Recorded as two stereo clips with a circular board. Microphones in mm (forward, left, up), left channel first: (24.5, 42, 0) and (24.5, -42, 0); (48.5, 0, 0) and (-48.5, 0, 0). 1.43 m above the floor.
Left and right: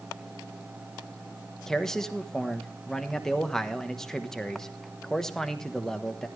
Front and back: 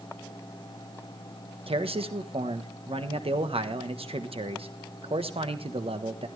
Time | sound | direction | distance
1.7 | a man speaking | 175° left | 1.2 m